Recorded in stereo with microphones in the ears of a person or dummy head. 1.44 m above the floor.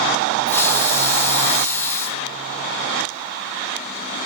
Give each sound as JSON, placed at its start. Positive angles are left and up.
{"t": 0.5, "sound": "a hiss", "side_deg": 10, "distance_m": 1.2}